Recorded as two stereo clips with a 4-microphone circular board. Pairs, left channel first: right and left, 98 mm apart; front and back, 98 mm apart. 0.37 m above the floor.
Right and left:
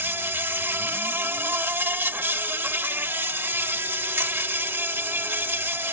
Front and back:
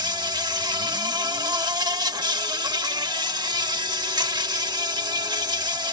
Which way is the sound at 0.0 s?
150° left.